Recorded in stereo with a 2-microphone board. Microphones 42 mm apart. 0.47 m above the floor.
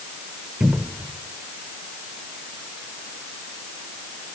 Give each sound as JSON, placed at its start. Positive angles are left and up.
{"t": 0.6, "sound": "a cupboard door", "side_deg": -50, "distance_m": 1.2}